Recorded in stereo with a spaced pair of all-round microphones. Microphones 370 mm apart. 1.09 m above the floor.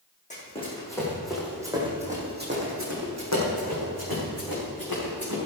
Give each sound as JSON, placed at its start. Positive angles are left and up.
{"t": 0.3, "sound": "running footsteps", "side_deg": 20, "distance_m": 4.0}